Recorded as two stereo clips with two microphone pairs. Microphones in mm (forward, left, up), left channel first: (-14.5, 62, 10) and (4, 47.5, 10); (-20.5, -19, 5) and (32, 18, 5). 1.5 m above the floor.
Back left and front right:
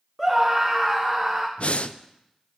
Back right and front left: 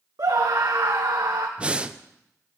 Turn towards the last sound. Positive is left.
turn(degrees=110)